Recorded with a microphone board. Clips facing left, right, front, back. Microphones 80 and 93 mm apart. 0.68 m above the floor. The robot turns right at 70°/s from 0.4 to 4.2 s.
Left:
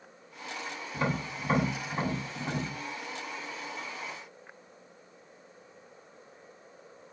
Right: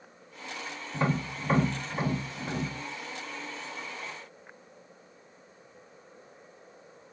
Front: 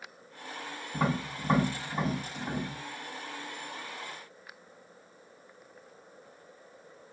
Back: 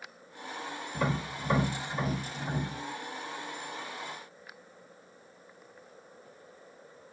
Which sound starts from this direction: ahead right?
Tapping, at 0.9 s.